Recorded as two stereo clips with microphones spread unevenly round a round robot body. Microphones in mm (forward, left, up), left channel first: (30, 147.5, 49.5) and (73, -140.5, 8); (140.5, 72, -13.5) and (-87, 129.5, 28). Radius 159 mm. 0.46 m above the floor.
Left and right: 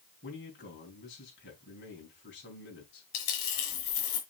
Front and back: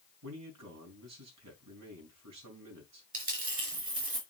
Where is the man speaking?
160° left, 5 m.